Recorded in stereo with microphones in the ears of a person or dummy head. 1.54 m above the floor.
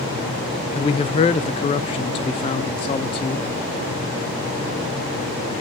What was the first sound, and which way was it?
A man speaking, 30° left (ahead or behind).